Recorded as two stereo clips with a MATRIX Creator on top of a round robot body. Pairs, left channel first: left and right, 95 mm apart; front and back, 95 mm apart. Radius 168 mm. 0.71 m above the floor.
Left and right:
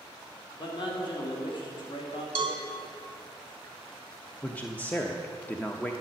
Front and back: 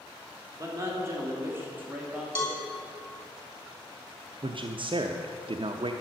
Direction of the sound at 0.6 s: 125° left.